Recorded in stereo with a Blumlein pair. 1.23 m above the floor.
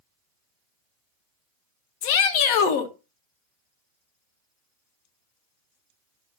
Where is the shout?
45° left, 1.0 m.